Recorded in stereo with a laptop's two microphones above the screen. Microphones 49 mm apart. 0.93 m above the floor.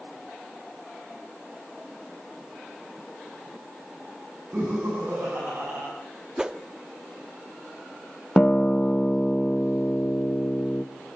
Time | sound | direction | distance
4.5 | laughter | 45° right (ahead or behind) | 8 m
6.4 | a whoosh | 20° right (ahead or behind) | 0.7 m
8.4 | a guitar | 20° left (ahead or behind) | 0.6 m